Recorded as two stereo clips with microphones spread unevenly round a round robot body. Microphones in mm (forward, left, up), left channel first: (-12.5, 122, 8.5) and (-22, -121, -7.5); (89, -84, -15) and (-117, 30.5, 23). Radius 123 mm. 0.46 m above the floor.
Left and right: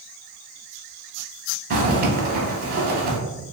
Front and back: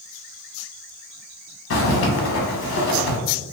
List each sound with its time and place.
1.7 s a zipper: 45° right, 0.7 m